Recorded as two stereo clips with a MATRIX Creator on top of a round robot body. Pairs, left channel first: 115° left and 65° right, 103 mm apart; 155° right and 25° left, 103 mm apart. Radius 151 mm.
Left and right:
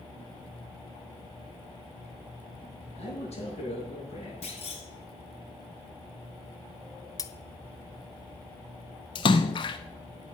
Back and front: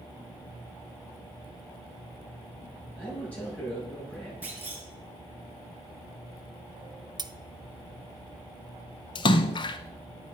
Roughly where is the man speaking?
Behind left.